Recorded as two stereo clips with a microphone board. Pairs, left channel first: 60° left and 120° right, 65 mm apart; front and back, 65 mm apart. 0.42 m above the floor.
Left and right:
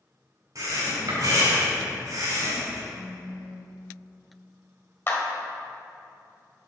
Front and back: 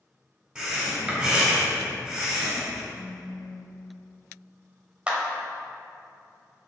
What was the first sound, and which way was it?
Breathing, 105° right.